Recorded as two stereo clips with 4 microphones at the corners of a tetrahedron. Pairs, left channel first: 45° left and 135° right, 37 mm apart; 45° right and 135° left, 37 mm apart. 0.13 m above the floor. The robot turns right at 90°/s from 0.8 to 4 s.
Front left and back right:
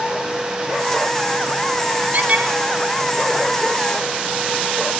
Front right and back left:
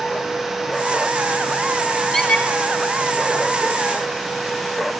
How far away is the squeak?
About 1.8 m.